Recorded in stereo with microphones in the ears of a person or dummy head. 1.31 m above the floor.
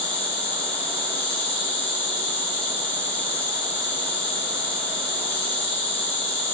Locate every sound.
0.0 s an insect: 5° left (ahead or behind), 2 m